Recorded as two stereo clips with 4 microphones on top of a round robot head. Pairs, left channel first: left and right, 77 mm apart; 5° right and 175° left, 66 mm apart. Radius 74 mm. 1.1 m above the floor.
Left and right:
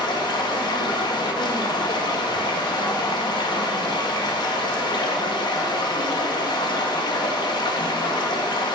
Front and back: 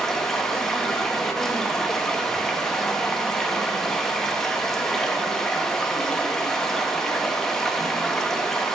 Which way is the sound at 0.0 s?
75° left.